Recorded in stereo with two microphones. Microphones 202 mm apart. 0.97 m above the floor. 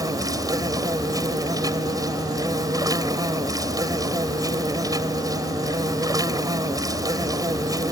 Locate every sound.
0.0 s an insect: 20° right (ahead or behind)